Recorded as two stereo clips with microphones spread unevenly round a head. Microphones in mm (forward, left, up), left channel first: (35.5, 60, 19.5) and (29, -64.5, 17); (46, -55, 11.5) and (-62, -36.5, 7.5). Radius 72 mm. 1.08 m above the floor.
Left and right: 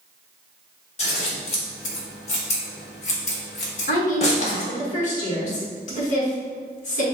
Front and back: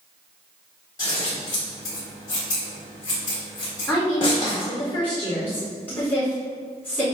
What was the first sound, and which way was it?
Scissors, 55° left.